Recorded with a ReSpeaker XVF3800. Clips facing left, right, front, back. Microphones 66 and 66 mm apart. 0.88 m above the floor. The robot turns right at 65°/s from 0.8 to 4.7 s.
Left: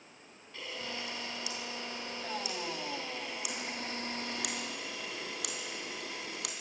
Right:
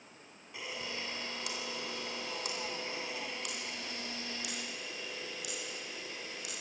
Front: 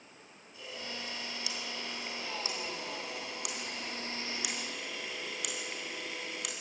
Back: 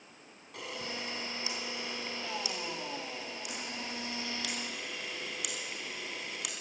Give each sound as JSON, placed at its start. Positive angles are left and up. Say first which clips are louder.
{"t": 0.5, "sound": "a camera shutter", "louder": "even, back 3 dB", "azimuth_deg": -165, "distance_m": 3.0}